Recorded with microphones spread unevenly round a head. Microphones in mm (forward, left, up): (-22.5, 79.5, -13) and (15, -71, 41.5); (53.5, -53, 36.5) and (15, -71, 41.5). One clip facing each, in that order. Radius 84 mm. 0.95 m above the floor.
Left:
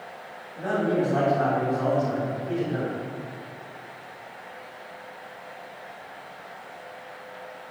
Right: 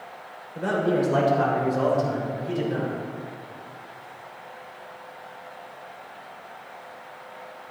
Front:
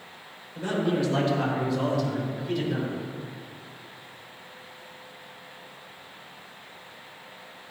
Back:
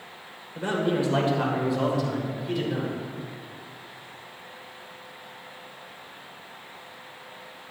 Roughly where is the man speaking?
Right.